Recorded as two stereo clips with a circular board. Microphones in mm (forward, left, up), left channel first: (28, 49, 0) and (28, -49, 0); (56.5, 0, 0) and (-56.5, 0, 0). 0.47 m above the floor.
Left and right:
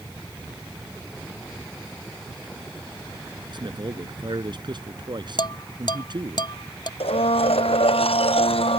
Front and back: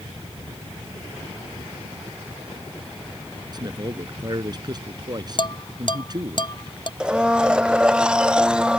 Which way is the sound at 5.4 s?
50° left.